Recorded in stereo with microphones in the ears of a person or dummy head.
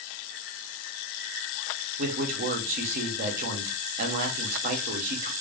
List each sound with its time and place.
2.0 s a man speaking: 45° right (ahead or behind), 0.6 m